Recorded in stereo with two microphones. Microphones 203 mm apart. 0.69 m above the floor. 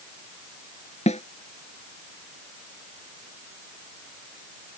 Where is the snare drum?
35° left (ahead or behind).